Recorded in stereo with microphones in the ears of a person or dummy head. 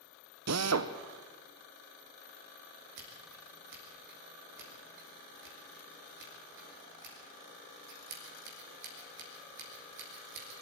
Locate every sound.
0.5 s a drill: 75° right (ahead or behind), 1.1 m
3.0 s scissors: 55° right (ahead or behind), 4 m